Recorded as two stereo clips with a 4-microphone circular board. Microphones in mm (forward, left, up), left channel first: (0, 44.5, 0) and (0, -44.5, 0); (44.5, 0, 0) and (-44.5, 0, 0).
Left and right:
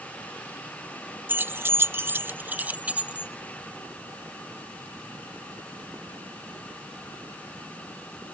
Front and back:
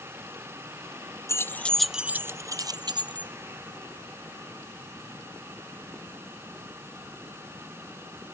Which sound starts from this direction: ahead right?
Keys jangling, at 1.3 s.